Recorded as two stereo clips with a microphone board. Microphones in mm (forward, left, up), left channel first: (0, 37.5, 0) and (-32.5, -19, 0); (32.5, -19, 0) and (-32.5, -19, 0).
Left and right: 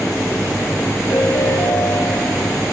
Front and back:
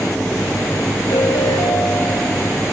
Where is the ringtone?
10° left, 5.5 m.